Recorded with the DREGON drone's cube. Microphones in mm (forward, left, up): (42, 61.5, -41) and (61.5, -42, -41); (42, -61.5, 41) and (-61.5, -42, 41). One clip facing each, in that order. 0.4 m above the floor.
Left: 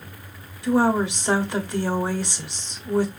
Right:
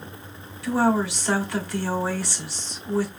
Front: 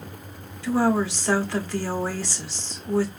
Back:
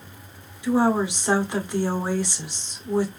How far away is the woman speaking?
About 1.4 m.